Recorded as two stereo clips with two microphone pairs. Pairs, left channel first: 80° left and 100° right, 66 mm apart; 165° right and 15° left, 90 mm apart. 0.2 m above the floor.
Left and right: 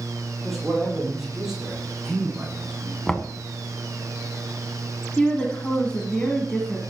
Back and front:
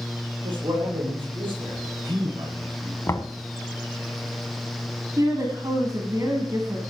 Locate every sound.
0.4 s a man speaking: 5° right, 6.5 m; by 3.0 s 20° right, 8.5 m
3.1 s knocking: 155° left, 1.0 m
5.2 s a woman speaking: 15° left, 1.7 m